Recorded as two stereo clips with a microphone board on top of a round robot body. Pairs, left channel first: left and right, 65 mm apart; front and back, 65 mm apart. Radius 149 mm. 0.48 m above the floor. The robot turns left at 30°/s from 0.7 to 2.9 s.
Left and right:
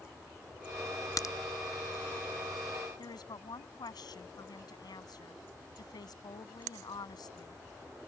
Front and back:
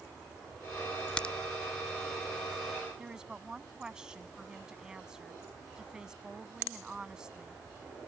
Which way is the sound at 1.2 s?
75° left.